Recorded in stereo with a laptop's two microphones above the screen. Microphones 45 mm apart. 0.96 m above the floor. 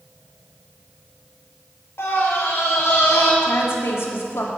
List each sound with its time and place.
2.0 s a scream: 80° left, 3.5 m
3.4 s a woman speaking: 75° left (ahead or behind), 2.5 m